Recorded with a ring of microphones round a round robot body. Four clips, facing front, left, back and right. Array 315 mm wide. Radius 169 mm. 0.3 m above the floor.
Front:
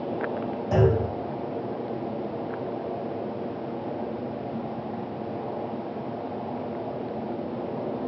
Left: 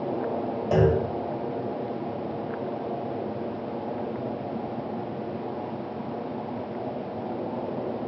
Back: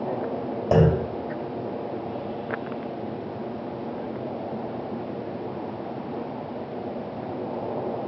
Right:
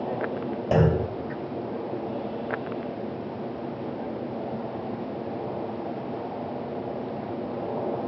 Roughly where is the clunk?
Behind.